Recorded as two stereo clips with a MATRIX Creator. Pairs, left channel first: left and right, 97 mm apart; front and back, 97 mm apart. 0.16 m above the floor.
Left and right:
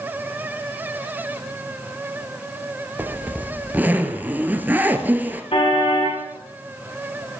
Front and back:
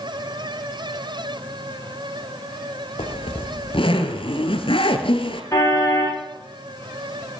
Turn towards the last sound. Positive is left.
turn(degrees=60)